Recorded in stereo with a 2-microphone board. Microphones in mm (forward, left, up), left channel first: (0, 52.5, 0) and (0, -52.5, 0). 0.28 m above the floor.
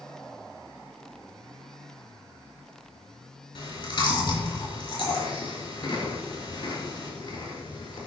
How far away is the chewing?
About 4 m.